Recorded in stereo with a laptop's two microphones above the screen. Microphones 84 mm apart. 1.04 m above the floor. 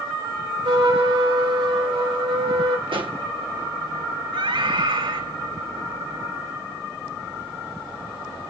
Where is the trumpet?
80° right, 4 m.